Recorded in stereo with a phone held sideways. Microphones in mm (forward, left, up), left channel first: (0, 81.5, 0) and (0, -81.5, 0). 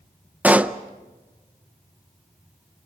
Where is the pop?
10° right (ahead or behind), 0.6 m.